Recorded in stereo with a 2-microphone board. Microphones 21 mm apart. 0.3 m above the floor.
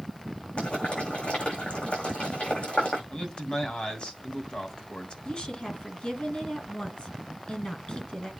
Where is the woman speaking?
45° left (ahead or behind), 3 m.